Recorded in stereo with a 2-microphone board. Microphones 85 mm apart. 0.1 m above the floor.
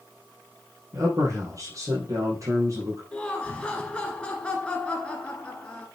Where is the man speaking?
40° right (ahead or behind), 3.5 m.